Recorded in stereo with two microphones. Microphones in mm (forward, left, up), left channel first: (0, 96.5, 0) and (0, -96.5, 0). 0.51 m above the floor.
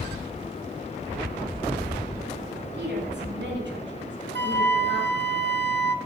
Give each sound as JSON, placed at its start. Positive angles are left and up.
{"t": 2.7, "sound": "a woman speaking", "side_deg": -70, "distance_m": 6.5}
{"t": 4.3, "sound": "a flute", "side_deg": -70, "distance_m": 0.6}